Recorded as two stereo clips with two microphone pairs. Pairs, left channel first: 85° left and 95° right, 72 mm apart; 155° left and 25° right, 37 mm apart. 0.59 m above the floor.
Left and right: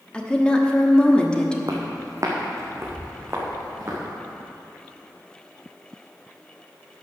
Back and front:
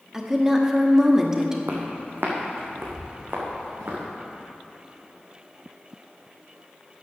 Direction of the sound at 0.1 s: 25° left.